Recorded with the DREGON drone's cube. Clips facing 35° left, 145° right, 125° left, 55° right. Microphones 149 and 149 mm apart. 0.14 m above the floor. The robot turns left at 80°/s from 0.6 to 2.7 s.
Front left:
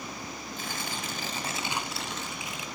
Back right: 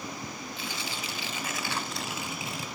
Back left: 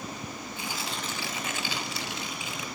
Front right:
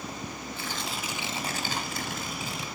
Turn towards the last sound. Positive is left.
turn(degrees=-110)